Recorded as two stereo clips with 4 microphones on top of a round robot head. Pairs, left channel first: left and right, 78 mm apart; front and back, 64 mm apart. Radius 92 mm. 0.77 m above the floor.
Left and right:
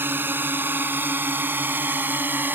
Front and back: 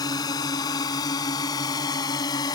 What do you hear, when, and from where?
0.0 s a drone: 25° right